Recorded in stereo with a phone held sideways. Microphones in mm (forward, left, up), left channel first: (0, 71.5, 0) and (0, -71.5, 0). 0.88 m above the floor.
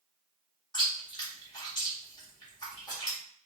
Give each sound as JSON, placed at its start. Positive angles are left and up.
{"t": 0.7, "sound": "chewing", "side_deg": 30, "distance_m": 2.0}